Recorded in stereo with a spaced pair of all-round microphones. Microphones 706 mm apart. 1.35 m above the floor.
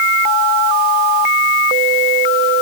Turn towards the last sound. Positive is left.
No sound to turn to.